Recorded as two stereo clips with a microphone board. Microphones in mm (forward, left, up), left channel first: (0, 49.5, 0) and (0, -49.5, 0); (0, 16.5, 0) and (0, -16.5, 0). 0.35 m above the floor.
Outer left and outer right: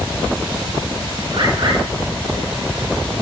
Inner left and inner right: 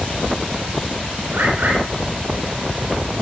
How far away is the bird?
About 5 m.